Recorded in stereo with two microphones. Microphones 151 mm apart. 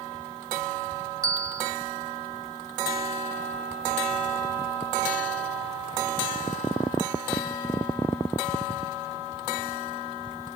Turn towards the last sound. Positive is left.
turn(degrees=-25)  # may be behind; listen again after turning